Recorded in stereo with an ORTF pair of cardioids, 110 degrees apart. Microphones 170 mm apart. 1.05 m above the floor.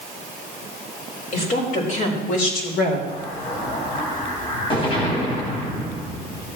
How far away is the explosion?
About 2.5 m.